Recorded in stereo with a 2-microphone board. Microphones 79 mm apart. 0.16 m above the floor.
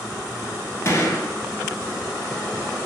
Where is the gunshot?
35° left (ahead or behind), 0.7 m.